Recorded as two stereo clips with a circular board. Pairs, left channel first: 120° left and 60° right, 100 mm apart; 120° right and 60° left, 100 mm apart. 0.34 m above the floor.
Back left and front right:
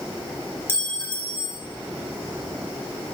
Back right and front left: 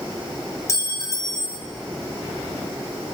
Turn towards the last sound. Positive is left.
turn(degrees=-175)